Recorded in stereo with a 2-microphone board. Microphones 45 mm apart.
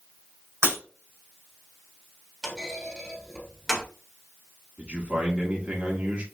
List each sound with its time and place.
0.6 s breaking glass: 75° right (ahead or behind), 2.5 m
2.4 s a clunk: centre (ahead or behind), 1.4 m
4.8 s a man speaking: 35° right (ahead or behind), 1.2 m